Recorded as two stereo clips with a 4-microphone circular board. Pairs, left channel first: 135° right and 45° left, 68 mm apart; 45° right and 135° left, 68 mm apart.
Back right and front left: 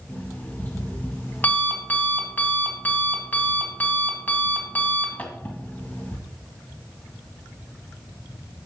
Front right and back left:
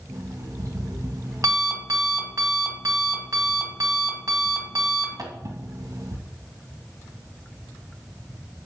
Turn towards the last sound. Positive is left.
turn(degrees=165)